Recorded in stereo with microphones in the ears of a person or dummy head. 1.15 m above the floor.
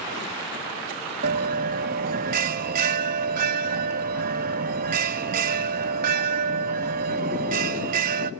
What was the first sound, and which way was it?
A bell, 40° right (ahead or behind).